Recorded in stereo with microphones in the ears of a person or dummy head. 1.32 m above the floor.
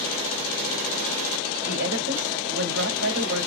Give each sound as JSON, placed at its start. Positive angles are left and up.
{"t": 1.7, "sound": "a woman speaking", "side_deg": -70, "distance_m": 2.5}